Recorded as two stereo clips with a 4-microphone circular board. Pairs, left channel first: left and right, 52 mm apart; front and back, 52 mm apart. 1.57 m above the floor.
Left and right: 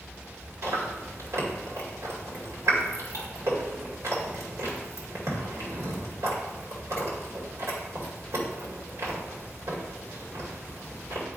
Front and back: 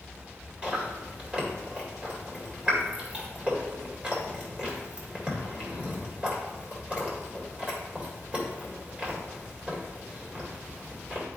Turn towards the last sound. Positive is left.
turn(degrees=-115)